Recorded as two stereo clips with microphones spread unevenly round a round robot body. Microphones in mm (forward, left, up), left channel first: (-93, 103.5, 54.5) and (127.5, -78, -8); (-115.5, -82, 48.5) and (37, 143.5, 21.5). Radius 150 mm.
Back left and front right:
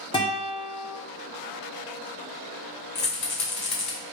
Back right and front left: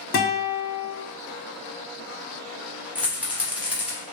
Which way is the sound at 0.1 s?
140° right.